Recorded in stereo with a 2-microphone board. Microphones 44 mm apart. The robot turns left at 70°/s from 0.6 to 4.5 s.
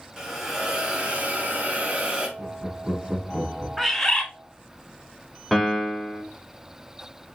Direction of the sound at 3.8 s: Straight behind.